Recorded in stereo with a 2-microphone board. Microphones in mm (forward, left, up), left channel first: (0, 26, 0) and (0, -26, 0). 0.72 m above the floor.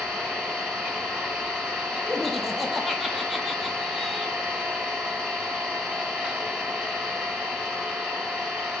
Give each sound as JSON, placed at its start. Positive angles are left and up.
{"t": 0.0, "sound": "an engine running", "side_deg": -15, "distance_m": 1.1}
{"t": 2.1, "sound": "laughter", "side_deg": 0, "distance_m": 0.6}